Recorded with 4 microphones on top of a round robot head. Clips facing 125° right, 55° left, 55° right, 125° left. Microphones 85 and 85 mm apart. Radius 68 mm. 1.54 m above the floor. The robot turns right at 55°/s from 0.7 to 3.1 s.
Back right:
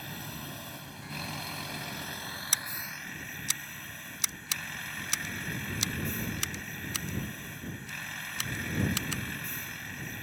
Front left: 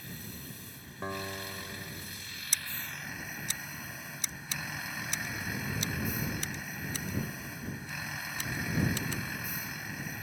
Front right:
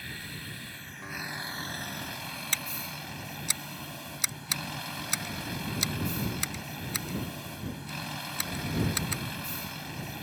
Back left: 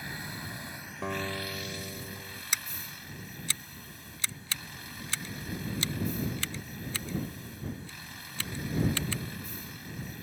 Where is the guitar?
100° left; by 2.4 s straight behind.